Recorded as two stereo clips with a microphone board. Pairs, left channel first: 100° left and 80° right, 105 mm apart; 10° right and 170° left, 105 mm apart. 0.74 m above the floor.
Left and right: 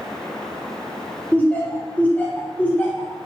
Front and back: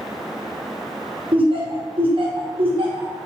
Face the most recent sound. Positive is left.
turn(degrees=170)